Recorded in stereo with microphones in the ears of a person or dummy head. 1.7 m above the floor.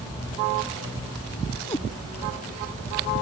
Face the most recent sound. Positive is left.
turn(degrees=15)  # may be behind; listen again after turning